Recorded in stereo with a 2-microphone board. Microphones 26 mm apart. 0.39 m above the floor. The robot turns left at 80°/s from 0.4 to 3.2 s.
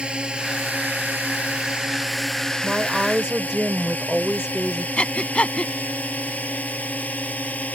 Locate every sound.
0.0 s a drone: 35° right (ahead or behind); by 7.8 s 65° left (ahead or behind)
2.6 s a woman speaking: 85° right; by 4.9 s 130° right
5.0 s breathing: 50° left (ahead or behind)